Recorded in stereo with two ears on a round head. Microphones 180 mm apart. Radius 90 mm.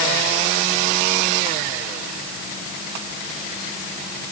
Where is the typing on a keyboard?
No typing on a keyboard in this recording.